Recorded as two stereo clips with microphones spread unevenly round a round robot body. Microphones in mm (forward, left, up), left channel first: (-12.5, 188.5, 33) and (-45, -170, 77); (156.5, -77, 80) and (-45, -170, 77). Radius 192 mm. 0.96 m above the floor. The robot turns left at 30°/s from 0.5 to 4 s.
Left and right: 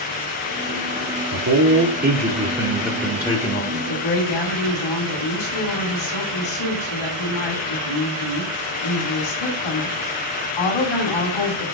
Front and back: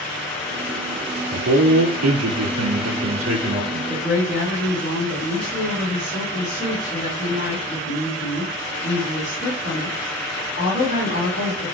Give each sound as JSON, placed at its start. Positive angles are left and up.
{"t": 1.3, "sound": "a man speaking", "azimuth_deg": -140, "distance_m": 2.5}
{"t": 3.7, "sound": "a woman speaking", "azimuth_deg": 95, "distance_m": 7.5}